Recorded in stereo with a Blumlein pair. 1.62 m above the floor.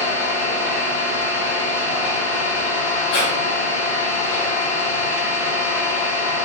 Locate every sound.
0.0 s an engine running: 35° left, 1.2 m
3.1 s breathing: 35° left, 0.5 m